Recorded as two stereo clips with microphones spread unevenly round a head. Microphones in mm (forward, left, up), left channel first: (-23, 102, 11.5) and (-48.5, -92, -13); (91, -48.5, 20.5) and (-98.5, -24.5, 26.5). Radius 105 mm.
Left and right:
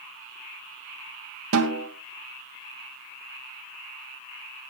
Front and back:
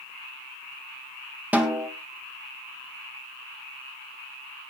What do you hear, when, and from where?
1.5 s a snare drum: 105° right, 2 m